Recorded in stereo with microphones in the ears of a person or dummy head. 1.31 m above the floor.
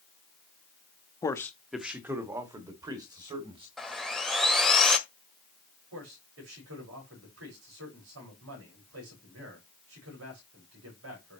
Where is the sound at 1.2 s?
25° left (ahead or behind), 1.0 m; by 3.7 s 25° right (ahead or behind), 4 m.